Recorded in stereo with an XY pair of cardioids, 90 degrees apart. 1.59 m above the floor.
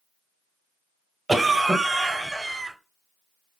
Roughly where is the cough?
Ahead.